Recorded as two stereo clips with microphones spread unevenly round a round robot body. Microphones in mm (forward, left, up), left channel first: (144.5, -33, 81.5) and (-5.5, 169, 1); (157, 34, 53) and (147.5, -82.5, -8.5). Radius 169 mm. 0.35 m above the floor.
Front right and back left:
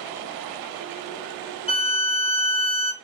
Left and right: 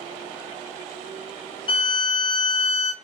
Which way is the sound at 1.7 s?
30° left.